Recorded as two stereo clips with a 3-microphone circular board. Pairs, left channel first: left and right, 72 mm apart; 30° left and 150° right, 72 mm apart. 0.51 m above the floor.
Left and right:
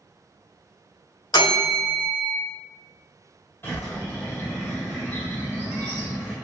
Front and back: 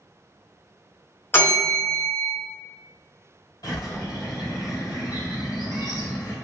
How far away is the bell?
About 2.0 m.